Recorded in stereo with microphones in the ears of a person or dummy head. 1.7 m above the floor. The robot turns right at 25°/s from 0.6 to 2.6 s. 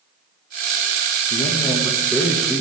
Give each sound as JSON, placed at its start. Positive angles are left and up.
{"t": 1.3, "sound": "a man speaking", "azimuth_deg": 155, "distance_m": 2.5}